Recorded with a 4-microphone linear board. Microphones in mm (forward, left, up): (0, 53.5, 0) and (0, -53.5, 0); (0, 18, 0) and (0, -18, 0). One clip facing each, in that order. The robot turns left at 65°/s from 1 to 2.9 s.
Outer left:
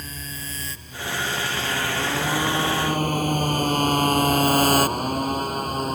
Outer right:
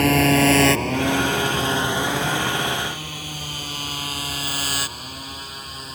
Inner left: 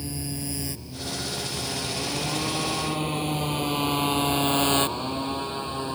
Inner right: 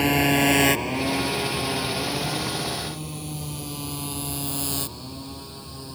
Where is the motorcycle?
80° right; by 5.9 s 50° left (ahead or behind).